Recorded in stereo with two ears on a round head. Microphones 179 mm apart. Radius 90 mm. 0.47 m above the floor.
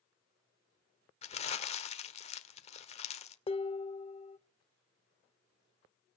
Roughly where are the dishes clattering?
Left.